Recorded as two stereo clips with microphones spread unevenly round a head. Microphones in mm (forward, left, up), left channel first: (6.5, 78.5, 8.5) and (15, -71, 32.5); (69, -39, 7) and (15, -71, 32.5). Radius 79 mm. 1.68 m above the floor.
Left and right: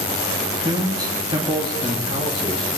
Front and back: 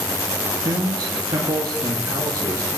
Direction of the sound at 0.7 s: 155° right.